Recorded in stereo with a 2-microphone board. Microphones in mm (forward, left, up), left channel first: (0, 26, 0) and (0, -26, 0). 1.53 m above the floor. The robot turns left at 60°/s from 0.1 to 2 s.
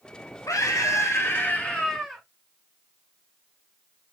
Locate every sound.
0.5 s a scream: 90° left, 0.7 m; by 2.2 s 5° right, 0.7 m